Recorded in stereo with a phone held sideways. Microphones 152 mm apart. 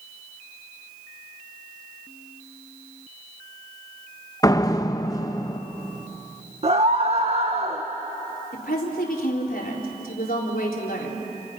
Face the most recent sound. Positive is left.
turn(degrees=75)  # may be behind; listen again after turning